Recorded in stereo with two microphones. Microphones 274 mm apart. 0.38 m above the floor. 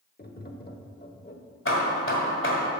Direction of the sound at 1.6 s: 45° left (ahead or behind).